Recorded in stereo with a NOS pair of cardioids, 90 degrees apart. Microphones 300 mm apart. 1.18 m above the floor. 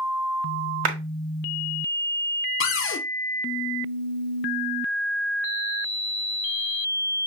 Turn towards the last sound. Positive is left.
turn(degrees=45)